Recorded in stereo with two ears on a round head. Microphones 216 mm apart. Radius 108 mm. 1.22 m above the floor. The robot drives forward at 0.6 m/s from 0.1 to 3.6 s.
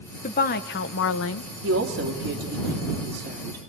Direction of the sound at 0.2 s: 35° left (ahead or behind).